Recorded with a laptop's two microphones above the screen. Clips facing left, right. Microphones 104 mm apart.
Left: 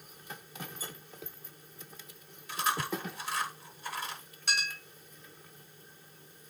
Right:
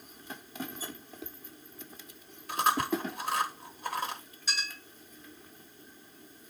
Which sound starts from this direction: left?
A clink, at 4.5 s.